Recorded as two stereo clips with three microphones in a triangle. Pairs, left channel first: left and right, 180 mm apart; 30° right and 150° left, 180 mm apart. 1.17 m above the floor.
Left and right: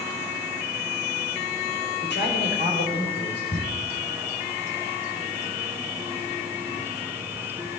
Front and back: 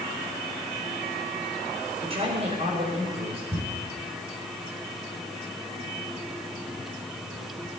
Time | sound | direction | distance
2.0 | a man speaking | 95° left | 5 m
3.5 | ticking | 75° left | 7.5 m